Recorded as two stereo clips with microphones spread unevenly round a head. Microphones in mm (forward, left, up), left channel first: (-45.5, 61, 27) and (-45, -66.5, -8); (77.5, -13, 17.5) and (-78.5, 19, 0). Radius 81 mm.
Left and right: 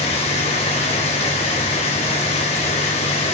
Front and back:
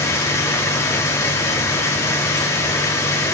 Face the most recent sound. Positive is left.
turn(degrees=55)